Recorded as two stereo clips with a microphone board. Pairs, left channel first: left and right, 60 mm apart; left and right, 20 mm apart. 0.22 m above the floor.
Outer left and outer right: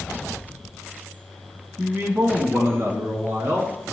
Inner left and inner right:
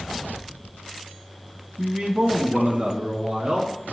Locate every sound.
1.8 s a man speaking: 35° right (ahead or behind), 1.8 m; by 3.9 s 60° right (ahead or behind), 3 m